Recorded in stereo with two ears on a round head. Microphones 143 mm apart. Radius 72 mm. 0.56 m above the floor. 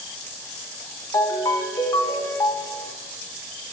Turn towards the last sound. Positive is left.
turn(degrees=20)  # may be behind; listen again after turning